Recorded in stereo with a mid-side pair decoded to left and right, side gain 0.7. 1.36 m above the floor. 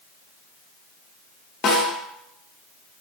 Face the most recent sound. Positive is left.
turn(degrees=40)